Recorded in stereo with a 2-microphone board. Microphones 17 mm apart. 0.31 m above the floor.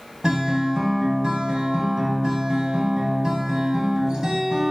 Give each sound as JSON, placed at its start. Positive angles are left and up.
{"t": 0.2, "sound": "a guitar", "side_deg": -55, "distance_m": 0.6}